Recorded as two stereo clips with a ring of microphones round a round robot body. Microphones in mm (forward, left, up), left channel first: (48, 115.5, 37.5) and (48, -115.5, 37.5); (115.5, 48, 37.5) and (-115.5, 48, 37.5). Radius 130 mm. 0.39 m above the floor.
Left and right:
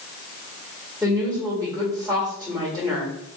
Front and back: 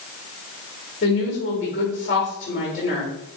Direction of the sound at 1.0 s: 10° left.